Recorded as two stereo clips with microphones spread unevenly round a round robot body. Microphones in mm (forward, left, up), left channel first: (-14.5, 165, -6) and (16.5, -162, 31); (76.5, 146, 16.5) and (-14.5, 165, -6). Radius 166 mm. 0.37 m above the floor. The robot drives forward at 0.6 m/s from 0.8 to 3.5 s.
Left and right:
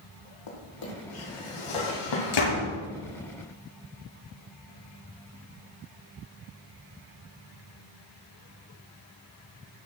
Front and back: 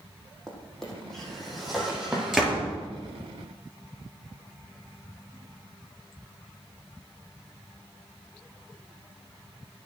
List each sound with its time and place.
0.5 s a drawer: 75° left, 4.5 m; by 2.5 s 85° left, 4 m
2.3 s a door slam: 85° left, 6 m